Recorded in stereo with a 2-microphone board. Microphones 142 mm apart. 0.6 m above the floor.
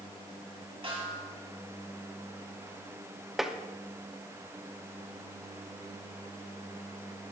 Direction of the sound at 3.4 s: Centre (ahead or behind).